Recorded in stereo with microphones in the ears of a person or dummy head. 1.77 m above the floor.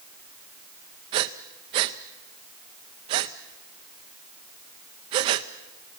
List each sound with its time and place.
1.1 s breathing: 30° right (ahead or behind), 0.7 m